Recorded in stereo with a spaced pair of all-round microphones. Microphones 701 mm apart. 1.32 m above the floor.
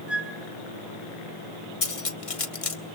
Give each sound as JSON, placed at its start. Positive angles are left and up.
{"t": 0.1, "sound": "a flute", "side_deg": 0, "distance_m": 3.5}
{"t": 1.8, "sound": "cutlery clinking", "side_deg": 50, "distance_m": 1.2}